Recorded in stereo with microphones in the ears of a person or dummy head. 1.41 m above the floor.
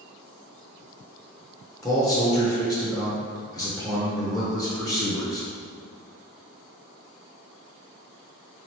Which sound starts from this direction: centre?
A man speaking, at 1.8 s.